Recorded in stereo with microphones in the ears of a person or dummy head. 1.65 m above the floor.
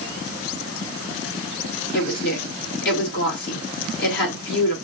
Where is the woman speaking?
65° left (ahead or behind), 2.5 m.